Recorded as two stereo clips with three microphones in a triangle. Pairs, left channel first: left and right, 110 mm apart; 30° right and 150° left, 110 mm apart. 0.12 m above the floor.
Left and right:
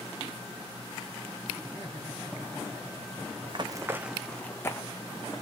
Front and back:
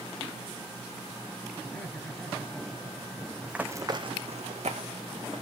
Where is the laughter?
40° left, 1.9 m.